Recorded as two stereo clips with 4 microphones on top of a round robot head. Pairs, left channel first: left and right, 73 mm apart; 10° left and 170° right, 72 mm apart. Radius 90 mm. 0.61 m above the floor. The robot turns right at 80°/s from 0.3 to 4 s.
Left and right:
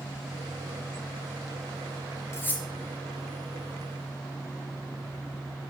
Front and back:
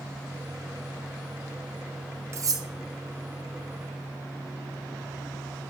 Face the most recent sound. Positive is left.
turn(degrees=-85)